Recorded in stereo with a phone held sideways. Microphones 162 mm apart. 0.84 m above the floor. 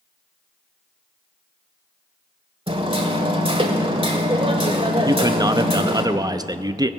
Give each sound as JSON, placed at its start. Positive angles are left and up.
{"t": 2.7, "sound": "hammering", "side_deg": -35, "distance_m": 1.3}
{"t": 5.0, "sound": "a man speaking", "side_deg": -25, "distance_m": 0.6}